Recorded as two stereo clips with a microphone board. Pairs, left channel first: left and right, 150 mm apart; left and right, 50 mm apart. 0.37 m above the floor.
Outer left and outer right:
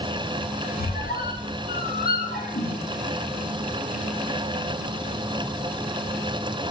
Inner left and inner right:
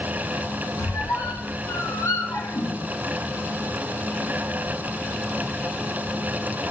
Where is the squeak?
80° left, 0.6 m.